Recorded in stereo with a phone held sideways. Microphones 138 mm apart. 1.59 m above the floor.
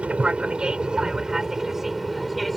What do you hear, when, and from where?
0.0 s an aircraft: 10° right (ahead or behind); by 2.6 s centre (ahead or behind)